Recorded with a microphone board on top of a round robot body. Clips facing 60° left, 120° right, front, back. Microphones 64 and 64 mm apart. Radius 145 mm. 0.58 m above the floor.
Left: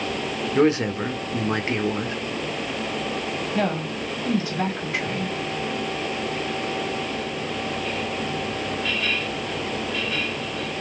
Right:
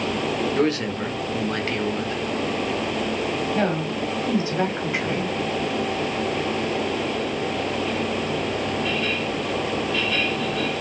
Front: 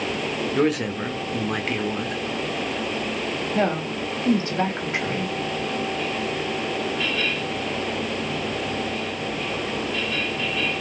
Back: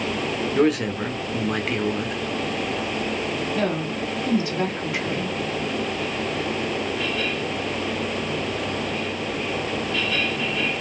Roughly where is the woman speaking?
Ahead right.